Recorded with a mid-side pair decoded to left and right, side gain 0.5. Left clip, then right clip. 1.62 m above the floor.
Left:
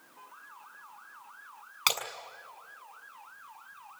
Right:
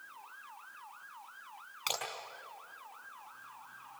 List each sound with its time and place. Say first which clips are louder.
1.9 s breaking glass: left 8 dB; 60° left, 6.5 m